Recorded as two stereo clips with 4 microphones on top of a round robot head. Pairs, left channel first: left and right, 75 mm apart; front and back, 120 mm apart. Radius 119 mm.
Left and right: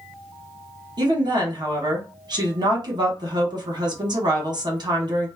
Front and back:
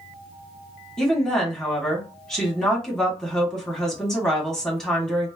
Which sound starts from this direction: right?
A woman speaking, at 1.0 s.